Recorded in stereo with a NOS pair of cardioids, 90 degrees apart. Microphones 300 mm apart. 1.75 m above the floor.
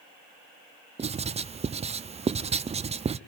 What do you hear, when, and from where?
1.0 s writing: 20° right, 0.5 m